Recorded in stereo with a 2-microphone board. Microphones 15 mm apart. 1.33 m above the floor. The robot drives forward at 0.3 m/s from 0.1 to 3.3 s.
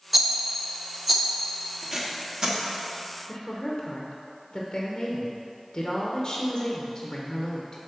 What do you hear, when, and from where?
0.1 s a rattle: 5° right (ahead or behind), 0.7 m
1.8 s tape being pulled: 40° right (ahead or behind), 1.2 m; by 2.6 s 45° right (ahead or behind), 1.0 m
3.3 s a woman speaking: 40° left (ahead or behind), 0.8 m